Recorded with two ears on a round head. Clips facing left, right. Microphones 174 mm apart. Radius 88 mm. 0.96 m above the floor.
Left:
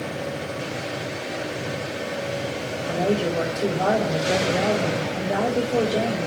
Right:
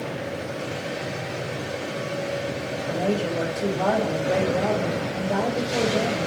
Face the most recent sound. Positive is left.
turn(degrees=20)  # may be behind; listen again after turning